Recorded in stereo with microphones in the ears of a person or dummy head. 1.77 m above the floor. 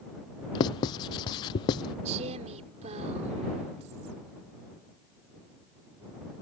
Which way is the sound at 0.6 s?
25° left (ahead or behind).